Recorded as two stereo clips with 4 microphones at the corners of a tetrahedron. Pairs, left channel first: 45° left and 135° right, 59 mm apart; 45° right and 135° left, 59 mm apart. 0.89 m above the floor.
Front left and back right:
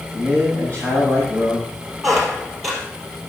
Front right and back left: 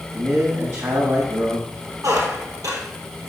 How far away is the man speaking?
About 6.5 m.